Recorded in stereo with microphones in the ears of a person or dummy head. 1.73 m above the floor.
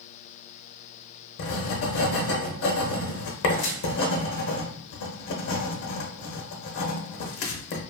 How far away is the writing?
About 0.6 m.